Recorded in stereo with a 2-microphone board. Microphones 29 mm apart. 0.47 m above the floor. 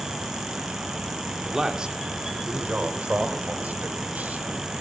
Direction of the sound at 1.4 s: 15° right (ahead or behind).